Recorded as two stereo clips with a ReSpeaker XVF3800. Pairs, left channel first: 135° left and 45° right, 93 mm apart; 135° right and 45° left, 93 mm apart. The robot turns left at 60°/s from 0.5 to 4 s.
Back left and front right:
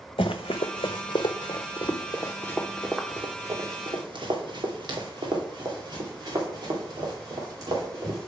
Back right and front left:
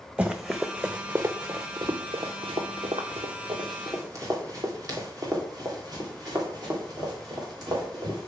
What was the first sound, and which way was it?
Running footsteps, 125° left.